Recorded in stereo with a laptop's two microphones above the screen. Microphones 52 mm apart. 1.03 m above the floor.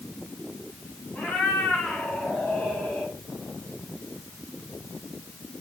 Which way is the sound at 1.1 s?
35° left (ahead or behind).